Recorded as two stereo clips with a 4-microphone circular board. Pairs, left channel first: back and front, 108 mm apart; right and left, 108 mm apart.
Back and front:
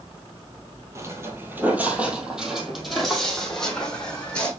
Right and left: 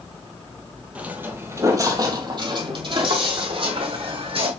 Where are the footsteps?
30° left, 1.4 m; by 4.5 s 100° left, 2.5 m.